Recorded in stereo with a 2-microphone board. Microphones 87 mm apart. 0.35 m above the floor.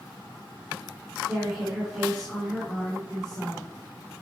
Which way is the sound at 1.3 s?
Centre (ahead or behind).